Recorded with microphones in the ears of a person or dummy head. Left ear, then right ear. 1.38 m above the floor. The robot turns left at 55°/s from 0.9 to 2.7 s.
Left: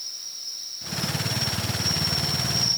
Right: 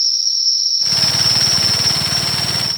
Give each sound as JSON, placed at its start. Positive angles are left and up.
{"t": 0.0, "sound": "an insect", "azimuth_deg": -75}